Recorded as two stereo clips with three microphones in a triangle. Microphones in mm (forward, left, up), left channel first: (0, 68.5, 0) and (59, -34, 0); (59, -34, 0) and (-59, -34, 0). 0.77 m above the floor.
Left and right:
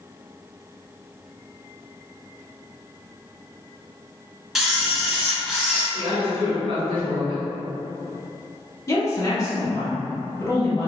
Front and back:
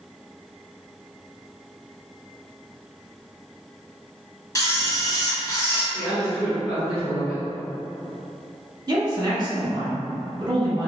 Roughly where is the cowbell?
No cowbell in this recording.